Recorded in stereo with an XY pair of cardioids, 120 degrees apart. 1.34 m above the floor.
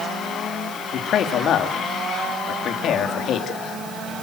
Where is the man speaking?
60° left, 2.5 m.